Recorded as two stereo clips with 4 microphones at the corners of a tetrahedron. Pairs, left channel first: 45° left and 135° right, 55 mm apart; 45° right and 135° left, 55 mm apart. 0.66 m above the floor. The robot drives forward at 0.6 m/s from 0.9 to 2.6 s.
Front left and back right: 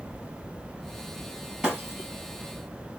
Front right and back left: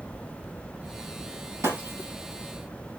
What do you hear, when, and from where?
1.6 s breaking glass: 145° left, 7.5 m